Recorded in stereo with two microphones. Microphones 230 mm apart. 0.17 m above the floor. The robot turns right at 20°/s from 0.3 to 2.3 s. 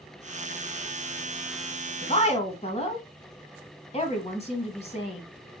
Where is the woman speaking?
25° left (ahead or behind), 1.0 m.